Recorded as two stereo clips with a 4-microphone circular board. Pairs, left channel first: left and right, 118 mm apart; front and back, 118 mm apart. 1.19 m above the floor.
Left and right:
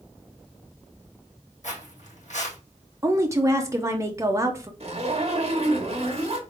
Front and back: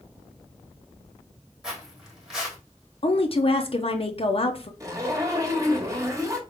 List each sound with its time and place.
1.6 s footsteps: 95° left, 3 m
3.0 s a woman speaking: 30° right, 0.7 m
4.8 s a zipper: 120° right, 1.2 m